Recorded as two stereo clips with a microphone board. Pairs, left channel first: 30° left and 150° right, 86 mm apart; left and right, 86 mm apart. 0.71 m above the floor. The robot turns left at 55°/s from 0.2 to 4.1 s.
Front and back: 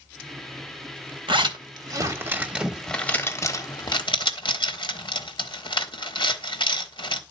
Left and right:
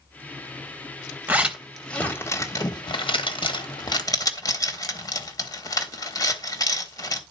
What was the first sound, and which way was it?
A zipper, 155° right.